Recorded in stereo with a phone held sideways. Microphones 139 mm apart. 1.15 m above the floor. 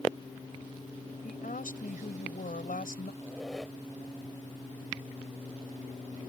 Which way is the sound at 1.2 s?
85° left.